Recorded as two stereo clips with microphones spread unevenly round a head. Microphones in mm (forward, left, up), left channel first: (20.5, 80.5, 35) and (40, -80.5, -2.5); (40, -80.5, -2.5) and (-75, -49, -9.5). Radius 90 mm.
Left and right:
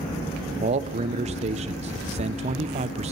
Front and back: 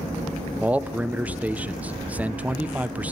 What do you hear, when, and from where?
0.6 s a man speaking: 120° right, 0.7 m